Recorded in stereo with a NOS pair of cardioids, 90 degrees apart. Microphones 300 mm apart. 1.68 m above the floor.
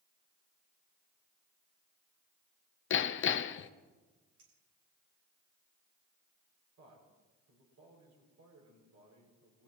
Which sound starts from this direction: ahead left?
Hammering, at 2.9 s.